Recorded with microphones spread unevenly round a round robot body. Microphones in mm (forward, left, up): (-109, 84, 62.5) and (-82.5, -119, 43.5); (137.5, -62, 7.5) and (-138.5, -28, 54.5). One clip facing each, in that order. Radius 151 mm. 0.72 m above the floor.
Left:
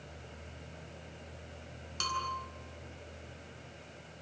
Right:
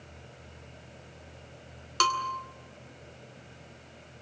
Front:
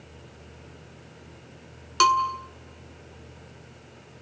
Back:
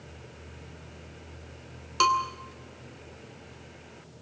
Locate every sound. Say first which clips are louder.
2.0 s a bell: right 9 dB, front 3 dB; 65° right, 2.5 m